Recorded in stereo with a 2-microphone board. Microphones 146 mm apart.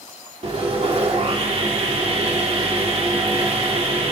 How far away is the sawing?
About 3.5 m.